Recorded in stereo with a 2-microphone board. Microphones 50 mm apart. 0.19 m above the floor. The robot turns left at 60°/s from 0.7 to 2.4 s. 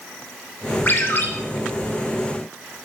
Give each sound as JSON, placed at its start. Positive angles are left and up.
{"t": 0.9, "sound": "a ringtone", "side_deg": 40, "distance_m": 0.6}